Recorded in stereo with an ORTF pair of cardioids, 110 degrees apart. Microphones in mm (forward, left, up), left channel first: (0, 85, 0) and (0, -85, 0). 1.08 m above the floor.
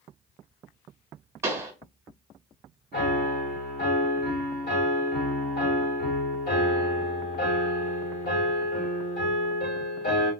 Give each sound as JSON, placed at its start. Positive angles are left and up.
{"t": 1.4, "sound": "a pop", "azimuth_deg": -15, "distance_m": 1.3}
{"t": 2.9, "sound": "a piano", "azimuth_deg": 55, "distance_m": 1.8}